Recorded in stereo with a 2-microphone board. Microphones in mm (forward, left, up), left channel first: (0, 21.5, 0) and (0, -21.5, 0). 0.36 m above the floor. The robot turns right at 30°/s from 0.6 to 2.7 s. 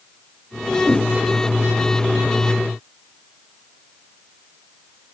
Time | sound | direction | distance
0.8 | a whoosh | 65° left (ahead or behind) | 1.0 m